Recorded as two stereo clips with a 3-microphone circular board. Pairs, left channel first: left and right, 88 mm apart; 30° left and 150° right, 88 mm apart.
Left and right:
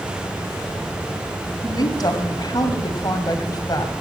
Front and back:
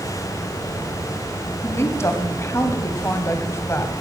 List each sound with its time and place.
1.6 s a woman speaking: 75° left, 2.0 m